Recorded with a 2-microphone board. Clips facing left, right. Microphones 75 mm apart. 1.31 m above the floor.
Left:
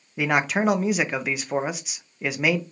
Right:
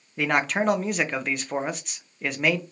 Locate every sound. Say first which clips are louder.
0.2 s a man speaking: left 1 dB; 5° left (ahead or behind), 0.5 m